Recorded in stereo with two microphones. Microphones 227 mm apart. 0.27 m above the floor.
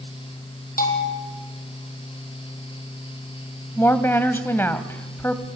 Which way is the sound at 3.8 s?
10° left (ahead or behind).